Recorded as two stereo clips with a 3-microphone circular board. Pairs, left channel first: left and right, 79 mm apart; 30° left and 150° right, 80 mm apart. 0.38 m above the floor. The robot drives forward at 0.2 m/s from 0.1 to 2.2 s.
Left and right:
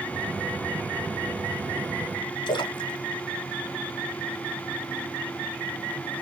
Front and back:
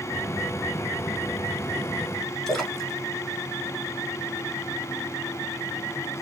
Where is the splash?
115° left, 0.8 m.